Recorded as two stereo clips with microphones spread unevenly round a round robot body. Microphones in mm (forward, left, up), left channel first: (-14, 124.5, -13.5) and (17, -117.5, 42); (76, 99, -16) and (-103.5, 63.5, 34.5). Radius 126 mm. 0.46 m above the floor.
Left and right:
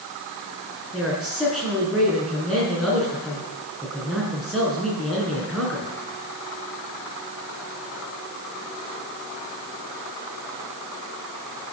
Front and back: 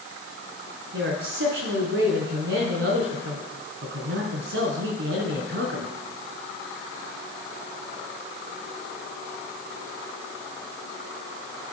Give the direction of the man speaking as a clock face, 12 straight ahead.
6 o'clock.